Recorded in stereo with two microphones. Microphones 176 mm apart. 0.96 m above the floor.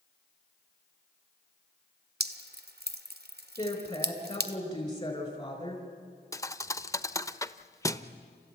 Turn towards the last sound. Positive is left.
turn(degrees=20)  # may be behind; listen again after turning